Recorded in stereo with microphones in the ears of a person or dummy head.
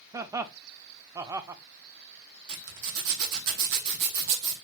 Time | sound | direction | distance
0.1 | laughter | 15° right (ahead or behind) | 0.5 m
2.5 | a zipper | 70° right (ahead or behind) | 1.2 m